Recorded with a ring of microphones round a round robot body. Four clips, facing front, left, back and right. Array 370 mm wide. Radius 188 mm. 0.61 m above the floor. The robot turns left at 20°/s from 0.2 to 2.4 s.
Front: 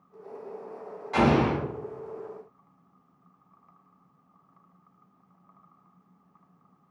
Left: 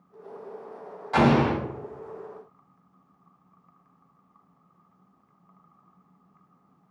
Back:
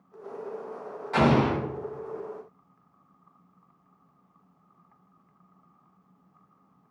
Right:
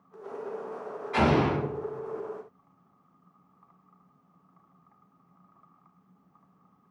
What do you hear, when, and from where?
1.1 s an explosion: 95° left, 1.9 m; by 1.6 s 85° left, 1.9 m